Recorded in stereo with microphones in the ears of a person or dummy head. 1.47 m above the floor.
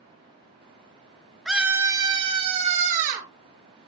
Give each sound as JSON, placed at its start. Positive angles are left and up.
{"t": 1.4, "sound": "a scream", "side_deg": 0, "distance_m": 1.6}